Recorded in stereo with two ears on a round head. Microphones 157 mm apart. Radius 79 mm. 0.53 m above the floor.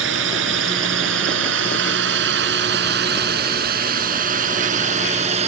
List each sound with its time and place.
0.0 s a drone: 80° right; by 5.5 s 35° right (ahead or behind)